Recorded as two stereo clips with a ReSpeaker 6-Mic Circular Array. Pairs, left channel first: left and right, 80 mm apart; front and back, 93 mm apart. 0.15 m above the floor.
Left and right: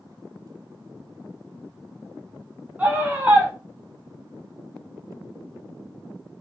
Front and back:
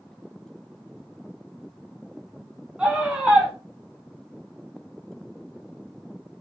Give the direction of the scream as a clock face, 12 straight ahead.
4 o'clock.